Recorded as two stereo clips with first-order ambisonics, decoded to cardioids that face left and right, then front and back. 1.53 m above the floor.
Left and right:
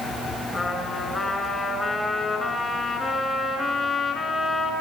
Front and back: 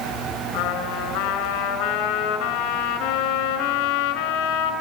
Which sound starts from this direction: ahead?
A trumpet, at 0.5 s.